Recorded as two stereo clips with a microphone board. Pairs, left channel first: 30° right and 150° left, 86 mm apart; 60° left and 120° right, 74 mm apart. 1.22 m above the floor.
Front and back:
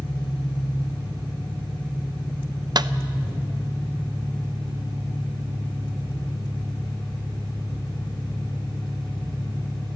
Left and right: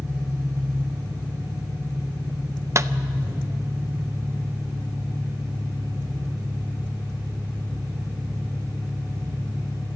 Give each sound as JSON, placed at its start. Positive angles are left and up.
{"t": 0.0, "sound": "an engine running", "azimuth_deg": -60, "distance_m": 3.5}
{"t": 2.8, "sound": "a clap", "azimuth_deg": -170, "distance_m": 0.6}